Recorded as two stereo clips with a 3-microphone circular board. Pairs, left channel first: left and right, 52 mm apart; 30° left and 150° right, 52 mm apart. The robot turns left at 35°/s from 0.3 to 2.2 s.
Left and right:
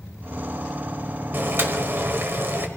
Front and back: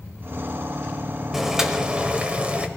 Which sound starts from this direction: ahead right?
Boiling, at 1.3 s.